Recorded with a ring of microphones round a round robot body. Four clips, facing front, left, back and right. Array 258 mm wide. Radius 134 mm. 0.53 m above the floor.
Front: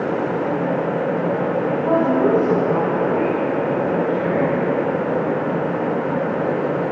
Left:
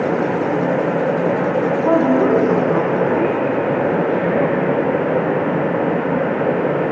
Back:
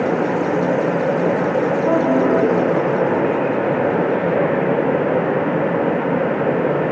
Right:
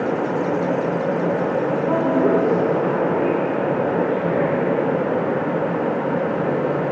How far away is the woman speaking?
About 4 m.